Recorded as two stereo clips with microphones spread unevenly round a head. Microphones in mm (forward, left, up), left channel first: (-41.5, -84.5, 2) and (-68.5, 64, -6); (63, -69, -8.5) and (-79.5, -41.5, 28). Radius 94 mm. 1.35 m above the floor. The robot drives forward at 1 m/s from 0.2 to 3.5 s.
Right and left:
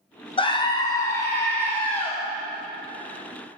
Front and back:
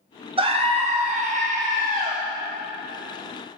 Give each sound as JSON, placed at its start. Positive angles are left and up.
{"t": 0.4, "sound": "a scream", "azimuth_deg": -135, "distance_m": 1.5}